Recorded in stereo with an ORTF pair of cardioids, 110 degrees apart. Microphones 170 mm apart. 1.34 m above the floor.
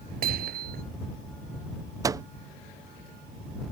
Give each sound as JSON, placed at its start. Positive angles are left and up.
{"t": 0.2, "sound": "hammering", "azimuth_deg": -60}
{"t": 2.0, "sound": "a microwave", "azimuth_deg": -20}